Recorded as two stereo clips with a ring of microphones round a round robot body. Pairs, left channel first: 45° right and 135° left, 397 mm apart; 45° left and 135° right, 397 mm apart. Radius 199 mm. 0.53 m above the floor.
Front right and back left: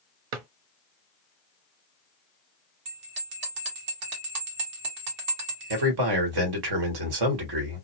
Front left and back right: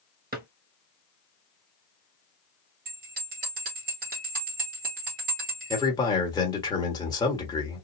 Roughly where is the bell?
Behind.